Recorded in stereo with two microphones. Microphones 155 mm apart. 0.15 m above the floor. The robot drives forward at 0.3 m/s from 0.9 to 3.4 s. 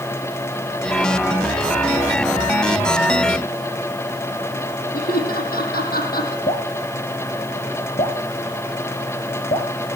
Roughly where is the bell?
No bell in this recording.